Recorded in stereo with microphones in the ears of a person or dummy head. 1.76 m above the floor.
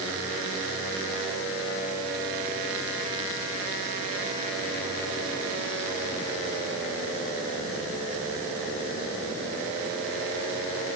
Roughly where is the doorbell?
I don't hear a doorbell.